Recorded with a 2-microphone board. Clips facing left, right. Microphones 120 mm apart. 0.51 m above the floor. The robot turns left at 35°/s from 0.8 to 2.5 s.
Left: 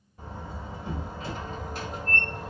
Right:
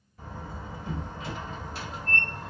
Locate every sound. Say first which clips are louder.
0.2 s a door slam: left 1 dB; 150° left, 1.2 m; by 2.5 s 90° left, 1.2 m